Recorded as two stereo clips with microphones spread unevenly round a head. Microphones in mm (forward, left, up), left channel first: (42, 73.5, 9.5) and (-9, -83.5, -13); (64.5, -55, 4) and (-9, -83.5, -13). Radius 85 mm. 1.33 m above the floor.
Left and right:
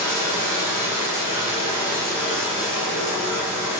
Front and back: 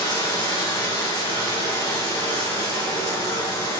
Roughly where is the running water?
Ahead.